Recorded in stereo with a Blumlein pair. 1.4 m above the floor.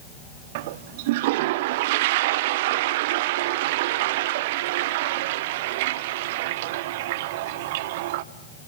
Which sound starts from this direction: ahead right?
A toilet flushing, at 0.6 s.